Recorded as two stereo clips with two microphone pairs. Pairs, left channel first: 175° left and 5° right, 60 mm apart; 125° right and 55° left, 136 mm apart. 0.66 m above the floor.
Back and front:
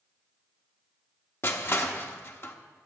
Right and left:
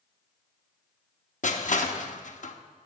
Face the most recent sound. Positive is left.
turn(degrees=-140)